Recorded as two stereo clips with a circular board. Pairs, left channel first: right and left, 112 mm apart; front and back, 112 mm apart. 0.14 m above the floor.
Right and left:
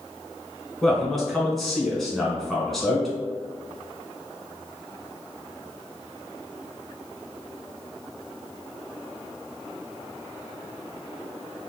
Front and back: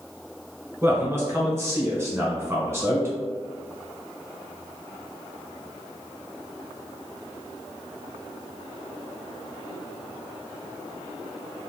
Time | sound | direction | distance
0.8 | a man speaking | 175° right | 1.0 m